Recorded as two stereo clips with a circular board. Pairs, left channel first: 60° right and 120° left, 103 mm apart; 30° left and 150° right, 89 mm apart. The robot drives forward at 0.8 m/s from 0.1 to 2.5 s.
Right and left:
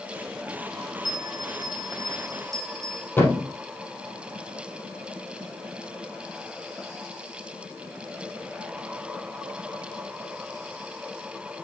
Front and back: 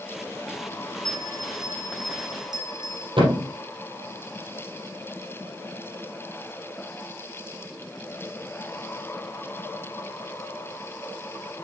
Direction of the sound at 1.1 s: 165° left.